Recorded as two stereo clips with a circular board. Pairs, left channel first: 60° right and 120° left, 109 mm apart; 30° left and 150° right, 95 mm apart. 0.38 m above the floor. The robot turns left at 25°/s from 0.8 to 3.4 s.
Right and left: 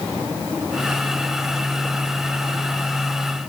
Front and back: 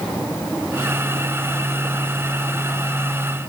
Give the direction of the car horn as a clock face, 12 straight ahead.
No car horn in this recording.